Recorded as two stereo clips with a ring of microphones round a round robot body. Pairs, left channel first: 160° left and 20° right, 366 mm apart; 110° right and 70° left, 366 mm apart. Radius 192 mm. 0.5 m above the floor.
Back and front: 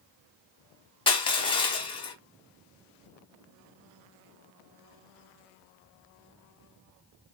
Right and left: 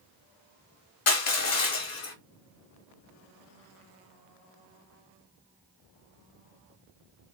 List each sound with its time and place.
1.1 s crushing: 130° right, 1.5 m